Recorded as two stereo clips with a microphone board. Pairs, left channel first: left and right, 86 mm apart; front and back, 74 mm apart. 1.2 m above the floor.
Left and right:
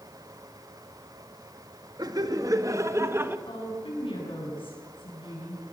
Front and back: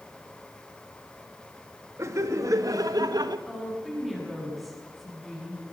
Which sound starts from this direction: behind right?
Laughter, at 2.0 s.